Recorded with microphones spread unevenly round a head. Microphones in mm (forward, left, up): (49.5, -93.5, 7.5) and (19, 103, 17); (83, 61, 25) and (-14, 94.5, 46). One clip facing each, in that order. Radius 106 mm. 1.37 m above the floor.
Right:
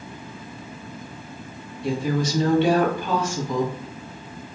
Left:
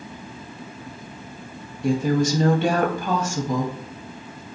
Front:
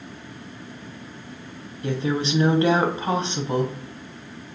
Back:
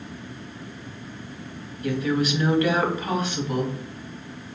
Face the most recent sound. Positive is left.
turn(degrees=50)